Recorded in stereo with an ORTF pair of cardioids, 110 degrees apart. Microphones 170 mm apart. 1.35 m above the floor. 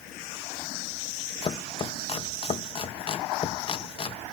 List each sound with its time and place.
1.4 s chopping: 35° left